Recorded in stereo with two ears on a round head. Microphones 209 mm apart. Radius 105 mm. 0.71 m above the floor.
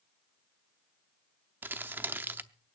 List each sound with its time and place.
1.6 s crumpling: 10° right (ahead or behind), 0.6 m